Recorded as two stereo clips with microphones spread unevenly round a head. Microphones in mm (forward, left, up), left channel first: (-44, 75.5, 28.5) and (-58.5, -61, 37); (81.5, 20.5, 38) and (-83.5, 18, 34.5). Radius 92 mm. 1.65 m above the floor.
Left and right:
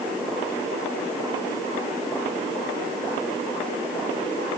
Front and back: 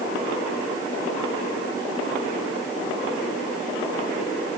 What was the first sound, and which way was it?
Only background noise.